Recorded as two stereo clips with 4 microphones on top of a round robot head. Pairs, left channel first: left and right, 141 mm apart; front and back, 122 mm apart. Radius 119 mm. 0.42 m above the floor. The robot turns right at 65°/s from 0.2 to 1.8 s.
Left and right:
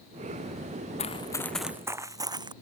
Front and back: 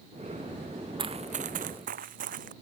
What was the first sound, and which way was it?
Running footsteps, 130° left.